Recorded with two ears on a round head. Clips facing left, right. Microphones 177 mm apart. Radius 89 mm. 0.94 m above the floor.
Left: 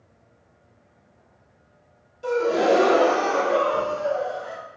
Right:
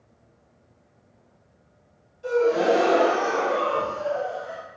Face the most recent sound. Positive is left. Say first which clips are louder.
# even
turn(degrees=65)  # may be behind; listen again after turning